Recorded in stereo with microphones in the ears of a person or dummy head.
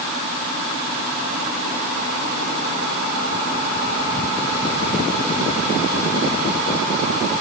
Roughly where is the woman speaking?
No woman speaking in this recording.